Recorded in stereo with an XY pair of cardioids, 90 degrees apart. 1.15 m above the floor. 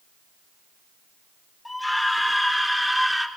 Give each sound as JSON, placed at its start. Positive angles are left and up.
{"t": 1.6, "sound": "a scream", "azimuth_deg": 15, "distance_m": 5.0}